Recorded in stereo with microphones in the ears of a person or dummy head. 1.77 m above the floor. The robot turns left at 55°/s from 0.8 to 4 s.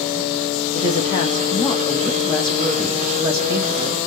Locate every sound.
0.8 s a woman speaking: 25° left (ahead or behind), 0.7 m; by 4.0 s 25° right (ahead or behind), 0.7 m